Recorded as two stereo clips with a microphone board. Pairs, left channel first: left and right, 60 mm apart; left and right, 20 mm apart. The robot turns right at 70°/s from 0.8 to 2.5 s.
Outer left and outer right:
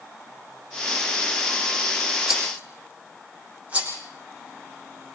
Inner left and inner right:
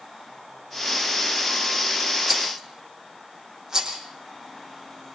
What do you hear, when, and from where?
2.3 s a rattle: 5° right (ahead or behind), 5.5 m; by 4.0 s 20° right (ahead or behind), 5.5 m